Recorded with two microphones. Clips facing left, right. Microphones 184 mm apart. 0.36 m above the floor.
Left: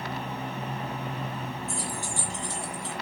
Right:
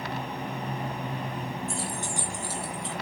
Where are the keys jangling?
30° right (ahead or behind), 2.5 m; by 2.9 s 5° left (ahead or behind), 3 m.